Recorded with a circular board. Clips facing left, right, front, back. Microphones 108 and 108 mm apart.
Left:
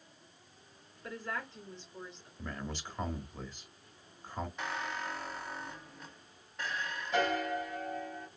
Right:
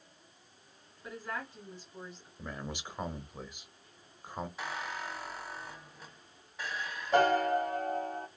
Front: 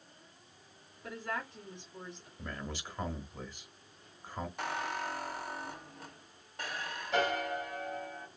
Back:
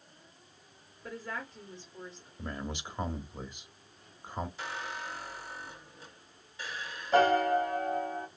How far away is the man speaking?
About 0.9 m.